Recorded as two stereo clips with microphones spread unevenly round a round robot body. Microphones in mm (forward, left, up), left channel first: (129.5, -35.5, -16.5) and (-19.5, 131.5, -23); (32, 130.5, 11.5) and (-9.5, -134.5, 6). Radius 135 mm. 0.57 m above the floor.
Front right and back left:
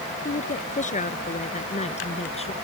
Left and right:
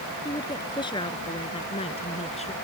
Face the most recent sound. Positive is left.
turn(degrees=15)